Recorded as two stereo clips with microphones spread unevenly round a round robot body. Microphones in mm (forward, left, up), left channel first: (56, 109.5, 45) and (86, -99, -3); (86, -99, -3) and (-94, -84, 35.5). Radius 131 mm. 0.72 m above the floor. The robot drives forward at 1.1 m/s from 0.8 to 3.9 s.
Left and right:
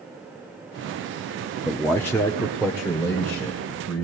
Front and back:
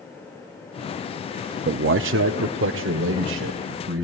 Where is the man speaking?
170° right, 0.7 m; by 4.0 s straight behind, 3 m.